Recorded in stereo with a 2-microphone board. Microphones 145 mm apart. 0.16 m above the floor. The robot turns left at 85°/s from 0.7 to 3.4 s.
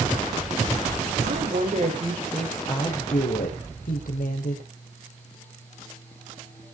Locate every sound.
1.2 s a woman speaking: 85° right, 6 m; by 4.6 s 95° left, 6 m